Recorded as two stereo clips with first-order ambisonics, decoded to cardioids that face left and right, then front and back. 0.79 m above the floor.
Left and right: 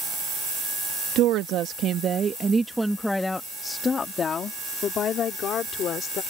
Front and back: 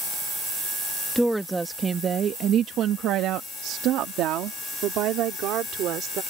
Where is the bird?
No bird in this recording.